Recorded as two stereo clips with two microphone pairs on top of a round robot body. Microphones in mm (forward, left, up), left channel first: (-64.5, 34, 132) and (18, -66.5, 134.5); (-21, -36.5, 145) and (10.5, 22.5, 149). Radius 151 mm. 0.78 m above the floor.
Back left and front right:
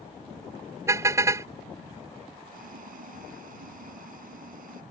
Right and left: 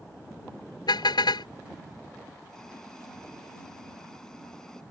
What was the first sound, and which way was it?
A car horn, 120° right.